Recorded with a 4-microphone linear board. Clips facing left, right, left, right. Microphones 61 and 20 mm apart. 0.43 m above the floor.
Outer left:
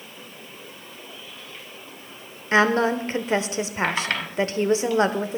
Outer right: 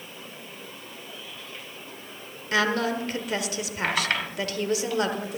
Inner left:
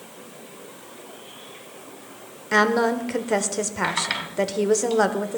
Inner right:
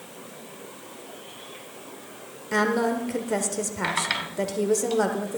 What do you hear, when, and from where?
2.5 s a woman speaking: 30° left (ahead or behind), 1.0 m